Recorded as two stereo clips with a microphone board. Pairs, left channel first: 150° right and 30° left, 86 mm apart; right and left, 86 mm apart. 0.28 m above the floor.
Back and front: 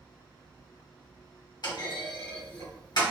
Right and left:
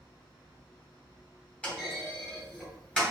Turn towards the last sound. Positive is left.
turn(degrees=-165)